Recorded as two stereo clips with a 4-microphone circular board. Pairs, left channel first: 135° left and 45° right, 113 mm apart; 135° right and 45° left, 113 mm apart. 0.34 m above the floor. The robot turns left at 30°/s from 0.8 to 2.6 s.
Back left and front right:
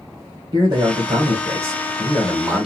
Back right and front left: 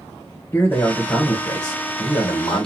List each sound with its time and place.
0.5 s a man speaking: 70° right, 2 m; by 2.7 s 125° right, 2 m